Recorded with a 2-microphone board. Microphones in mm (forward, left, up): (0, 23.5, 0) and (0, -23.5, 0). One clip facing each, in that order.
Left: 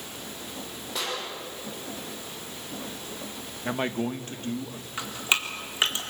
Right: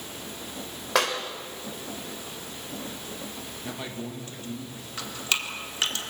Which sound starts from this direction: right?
A clap, at 0.9 s.